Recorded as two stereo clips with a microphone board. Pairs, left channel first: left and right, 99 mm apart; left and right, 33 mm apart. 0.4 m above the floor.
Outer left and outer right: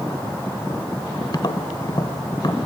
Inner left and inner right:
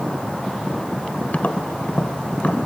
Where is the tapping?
50° left (ahead or behind), 1.2 m.